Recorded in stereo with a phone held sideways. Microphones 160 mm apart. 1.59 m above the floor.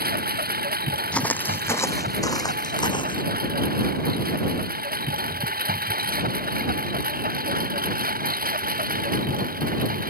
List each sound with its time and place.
0.0 s a lawn mower: 75° right (ahead or behind); by 10.1 s 65° right (ahead or behind)
1.1 s footsteps: 10° left (ahead or behind); by 3.2 s 30° left (ahead or behind)